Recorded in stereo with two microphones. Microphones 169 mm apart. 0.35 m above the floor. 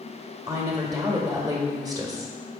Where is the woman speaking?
25° right (ahead or behind), 1.6 m.